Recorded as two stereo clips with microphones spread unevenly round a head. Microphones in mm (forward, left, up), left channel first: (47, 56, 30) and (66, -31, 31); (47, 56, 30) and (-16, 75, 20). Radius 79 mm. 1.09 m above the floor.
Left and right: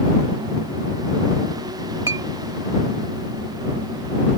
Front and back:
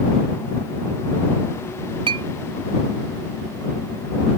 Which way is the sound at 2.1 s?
150° right.